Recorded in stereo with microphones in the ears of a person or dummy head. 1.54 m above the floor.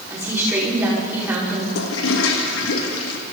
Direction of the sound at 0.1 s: 10° right (ahead or behind).